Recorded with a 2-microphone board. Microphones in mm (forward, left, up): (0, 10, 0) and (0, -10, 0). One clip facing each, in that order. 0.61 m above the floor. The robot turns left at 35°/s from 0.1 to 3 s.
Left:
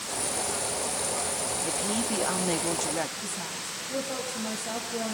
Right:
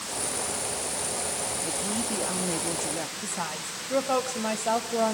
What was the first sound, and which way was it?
A woman speaking, 15° left (ahead or behind).